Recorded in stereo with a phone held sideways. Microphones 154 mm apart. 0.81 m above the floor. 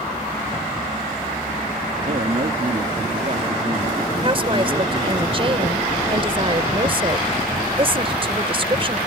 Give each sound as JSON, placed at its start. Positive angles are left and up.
{"t": 2.0, "sound": "a man speaking", "side_deg": -60}
{"t": 4.2, "sound": "a woman speaking", "side_deg": -35}